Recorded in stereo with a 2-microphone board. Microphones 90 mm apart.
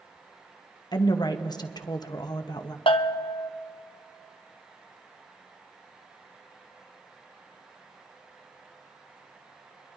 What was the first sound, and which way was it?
A woman speaking, 50° left (ahead or behind).